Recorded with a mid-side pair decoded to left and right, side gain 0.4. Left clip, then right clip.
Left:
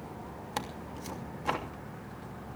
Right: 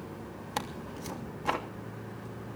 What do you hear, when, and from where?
0.6 s tearing paper: 15° right, 3 m